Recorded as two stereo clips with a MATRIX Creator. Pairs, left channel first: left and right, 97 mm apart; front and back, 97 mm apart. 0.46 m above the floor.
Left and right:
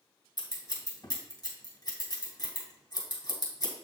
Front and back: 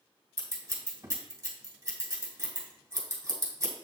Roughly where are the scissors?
Behind left.